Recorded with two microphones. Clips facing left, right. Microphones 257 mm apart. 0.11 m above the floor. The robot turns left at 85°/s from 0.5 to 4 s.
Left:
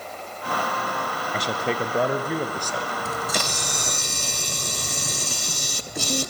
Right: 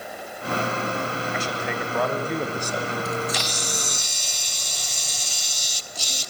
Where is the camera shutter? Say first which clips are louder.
Right 2 dB; 150° left, 0.8 m; by 6.3 s 70° left, 0.8 m.